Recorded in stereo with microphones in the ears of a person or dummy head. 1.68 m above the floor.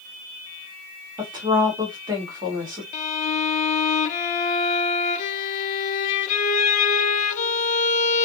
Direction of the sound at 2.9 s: 40° left (ahead or behind).